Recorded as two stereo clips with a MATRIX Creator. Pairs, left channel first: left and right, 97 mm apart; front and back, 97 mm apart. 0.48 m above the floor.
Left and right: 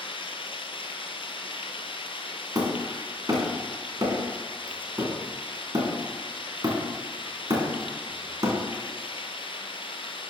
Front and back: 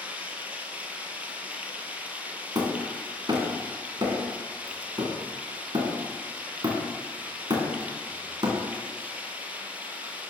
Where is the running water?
105° left, 1.3 m.